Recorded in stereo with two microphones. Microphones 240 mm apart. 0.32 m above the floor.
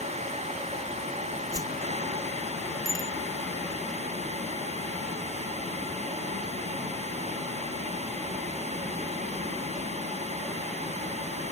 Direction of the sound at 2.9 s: 60° left (ahead or behind).